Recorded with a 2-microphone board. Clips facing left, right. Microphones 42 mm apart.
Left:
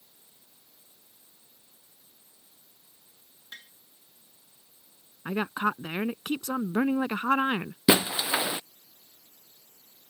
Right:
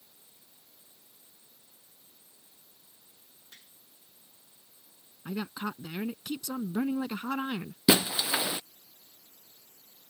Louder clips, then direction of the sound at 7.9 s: Left 2 dB; 15° left (ahead or behind).